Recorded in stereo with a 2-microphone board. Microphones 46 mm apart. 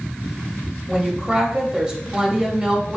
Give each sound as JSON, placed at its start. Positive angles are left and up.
{"t": 0.9, "sound": "a woman speaking", "side_deg": -15, "distance_m": 0.9}